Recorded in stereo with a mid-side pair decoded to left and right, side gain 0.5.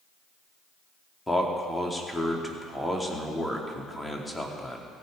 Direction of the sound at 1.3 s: 10° left.